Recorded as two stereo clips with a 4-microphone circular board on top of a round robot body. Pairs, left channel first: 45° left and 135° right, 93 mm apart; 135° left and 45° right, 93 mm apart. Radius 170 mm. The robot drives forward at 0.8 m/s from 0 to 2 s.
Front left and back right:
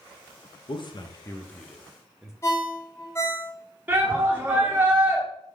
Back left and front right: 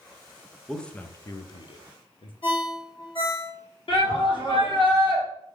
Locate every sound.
0.7 s a man speaking: 50° left, 0.8 m; by 2.3 s 140° left, 0.9 m
2.4 s a ringtone: 110° left, 1.2 m
3.9 s a shout: 155° left, 1.8 m